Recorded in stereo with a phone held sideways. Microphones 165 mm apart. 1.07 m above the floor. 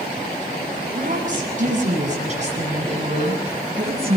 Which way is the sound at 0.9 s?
50° right (ahead or behind).